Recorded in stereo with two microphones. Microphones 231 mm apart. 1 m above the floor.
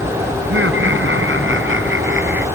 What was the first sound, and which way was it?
Laughter, 60° right (ahead or behind).